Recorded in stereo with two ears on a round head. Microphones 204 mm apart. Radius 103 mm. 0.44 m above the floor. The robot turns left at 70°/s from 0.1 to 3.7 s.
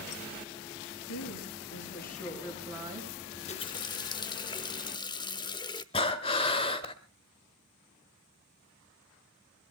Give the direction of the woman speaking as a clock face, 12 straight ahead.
8 o'clock.